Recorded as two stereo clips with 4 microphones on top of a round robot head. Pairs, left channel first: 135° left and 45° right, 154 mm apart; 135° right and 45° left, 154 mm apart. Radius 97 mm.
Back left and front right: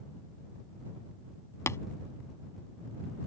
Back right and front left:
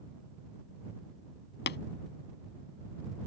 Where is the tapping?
150° right.